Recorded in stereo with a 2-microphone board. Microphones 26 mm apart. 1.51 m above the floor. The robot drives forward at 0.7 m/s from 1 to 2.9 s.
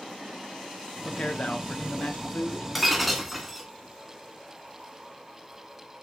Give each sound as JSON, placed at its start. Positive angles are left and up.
{"t": 1.0, "sound": "a man speaking", "side_deg": 45, "distance_m": 1.0}
{"t": 2.8, "sound": "breaking glass", "side_deg": -5, "distance_m": 1.0}